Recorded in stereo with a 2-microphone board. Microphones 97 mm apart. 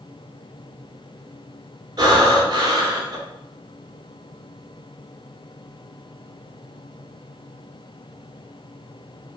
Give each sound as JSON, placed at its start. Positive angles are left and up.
{"t": 2.0, "sound": "breathing", "side_deg": -50, "distance_m": 1.5}